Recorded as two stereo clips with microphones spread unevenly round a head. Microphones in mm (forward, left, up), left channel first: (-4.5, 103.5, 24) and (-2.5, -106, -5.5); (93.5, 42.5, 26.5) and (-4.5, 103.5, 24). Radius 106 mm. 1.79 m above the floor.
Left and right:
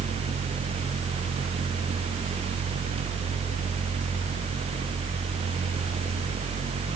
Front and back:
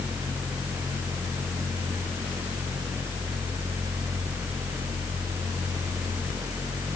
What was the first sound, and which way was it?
Only background noise.